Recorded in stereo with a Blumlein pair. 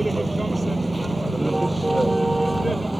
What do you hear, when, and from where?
0.0 s a vehicle: 5° right